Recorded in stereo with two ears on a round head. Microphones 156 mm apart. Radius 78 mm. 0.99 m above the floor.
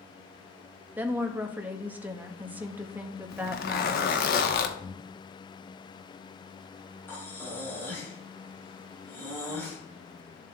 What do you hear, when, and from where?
1.0 s a woman speaking: 10° right (ahead or behind), 1.0 m
3.3 s a zipper: 55° left (ahead or behind), 1.1 m
4.8 s breathing: 20° left (ahead or behind), 0.6 m
7.1 s breathing: 10° left (ahead or behind), 4 m